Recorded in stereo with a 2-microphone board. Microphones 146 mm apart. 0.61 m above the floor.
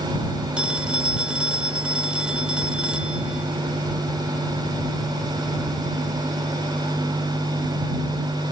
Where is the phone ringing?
5° right (ahead or behind).